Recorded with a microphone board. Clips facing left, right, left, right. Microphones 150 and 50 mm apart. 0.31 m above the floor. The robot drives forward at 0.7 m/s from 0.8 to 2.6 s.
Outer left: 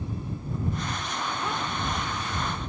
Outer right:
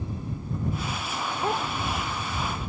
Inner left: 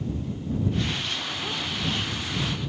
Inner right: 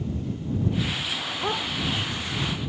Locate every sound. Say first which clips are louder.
1.4 s a dog barking: outer right 7 dB, inner right 4 dB; 40° right (ahead or behind)